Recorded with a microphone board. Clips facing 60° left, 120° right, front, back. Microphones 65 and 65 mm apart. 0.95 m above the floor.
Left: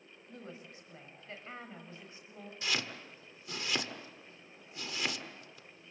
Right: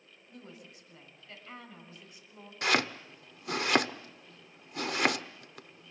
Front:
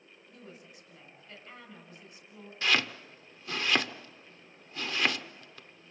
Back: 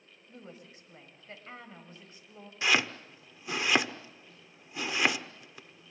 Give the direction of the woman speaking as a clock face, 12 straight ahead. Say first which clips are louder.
Left 2 dB, back 2 dB; 8 o'clock.